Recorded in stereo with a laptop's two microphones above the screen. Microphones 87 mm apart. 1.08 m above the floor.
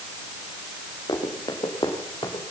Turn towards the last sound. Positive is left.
turn(degrees=70)  # may be behind; listen again after turning